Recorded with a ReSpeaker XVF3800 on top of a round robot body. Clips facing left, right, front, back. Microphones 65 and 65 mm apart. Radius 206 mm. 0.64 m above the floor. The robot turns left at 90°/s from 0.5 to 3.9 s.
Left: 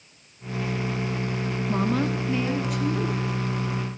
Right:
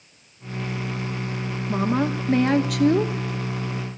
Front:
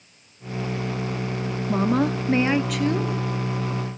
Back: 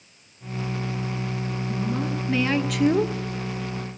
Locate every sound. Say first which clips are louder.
1.7 s a woman speaking: right 3 dB, front 8 dB; straight ahead, 1.6 m; by 3.1 s 130° right, 1.6 m